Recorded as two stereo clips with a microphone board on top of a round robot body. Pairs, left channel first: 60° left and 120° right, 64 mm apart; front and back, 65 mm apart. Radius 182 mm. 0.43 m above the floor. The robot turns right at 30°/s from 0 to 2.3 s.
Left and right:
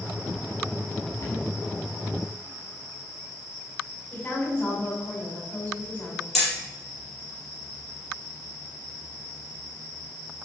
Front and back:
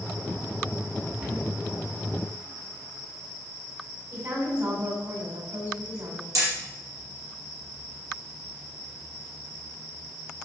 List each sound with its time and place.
1.2 s a cupboard door: 105° left, 6 m; by 1.4 s 115° left, 6 m
4.1 s a woman speaking: 130° left, 5.5 m
6.3 s hammering: 145° left, 6 m